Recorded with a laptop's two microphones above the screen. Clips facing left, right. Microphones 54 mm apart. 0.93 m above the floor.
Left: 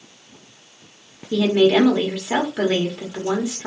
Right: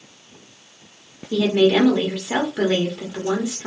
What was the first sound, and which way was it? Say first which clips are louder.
A woman speaking: left 1 dB; 10° left (ahead or behind).